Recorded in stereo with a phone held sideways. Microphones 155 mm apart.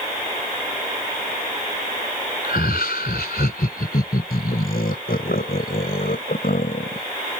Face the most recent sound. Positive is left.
turn(degrees=65)  # may be behind; listen again after turning